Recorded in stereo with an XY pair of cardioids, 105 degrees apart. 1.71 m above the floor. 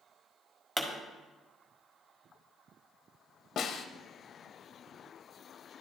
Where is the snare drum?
60° left, 0.7 m.